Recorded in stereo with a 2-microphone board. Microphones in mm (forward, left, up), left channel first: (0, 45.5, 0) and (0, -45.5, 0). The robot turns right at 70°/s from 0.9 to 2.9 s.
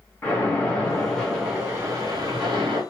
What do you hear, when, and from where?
0.2 s a splash: 160° left, 1.7 m; by 2.8 s 65° right, 1.7 m